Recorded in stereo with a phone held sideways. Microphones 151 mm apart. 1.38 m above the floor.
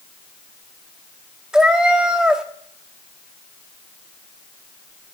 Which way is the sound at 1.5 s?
5° right (ahead or behind).